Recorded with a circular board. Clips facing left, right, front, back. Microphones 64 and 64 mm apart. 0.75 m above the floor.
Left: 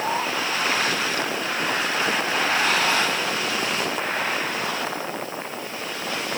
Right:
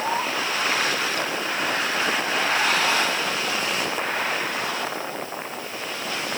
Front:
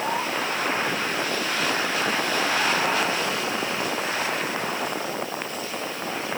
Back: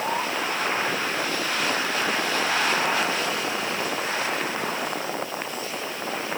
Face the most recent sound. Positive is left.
No sound to turn to.